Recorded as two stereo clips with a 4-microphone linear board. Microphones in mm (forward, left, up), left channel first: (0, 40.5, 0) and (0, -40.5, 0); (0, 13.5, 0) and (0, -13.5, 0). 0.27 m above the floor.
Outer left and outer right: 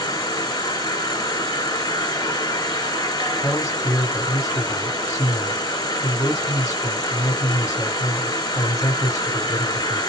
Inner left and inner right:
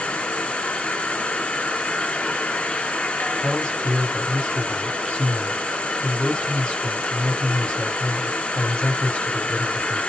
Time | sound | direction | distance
0.0 | an insect | 65° left (ahead or behind) | 1.3 m
3.4 | a man speaking | 45° left (ahead or behind) | 2.0 m